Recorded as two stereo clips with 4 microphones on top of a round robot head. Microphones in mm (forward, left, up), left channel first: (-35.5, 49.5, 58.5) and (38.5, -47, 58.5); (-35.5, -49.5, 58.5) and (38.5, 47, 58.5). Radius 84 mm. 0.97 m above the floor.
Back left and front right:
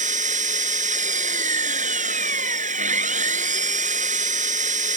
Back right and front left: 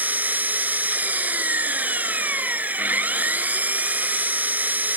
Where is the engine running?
25° right.